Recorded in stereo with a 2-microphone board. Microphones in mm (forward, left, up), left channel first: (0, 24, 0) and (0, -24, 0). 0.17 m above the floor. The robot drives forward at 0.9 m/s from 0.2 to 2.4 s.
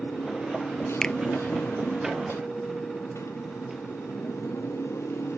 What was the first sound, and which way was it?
A motorcycle, 65° left (ahead or behind).